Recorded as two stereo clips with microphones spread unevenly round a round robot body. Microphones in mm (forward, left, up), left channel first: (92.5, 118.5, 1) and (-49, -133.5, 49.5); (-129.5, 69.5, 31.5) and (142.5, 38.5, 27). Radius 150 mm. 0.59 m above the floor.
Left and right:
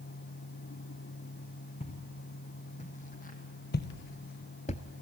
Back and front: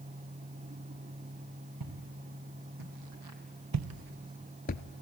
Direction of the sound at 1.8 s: 10° right.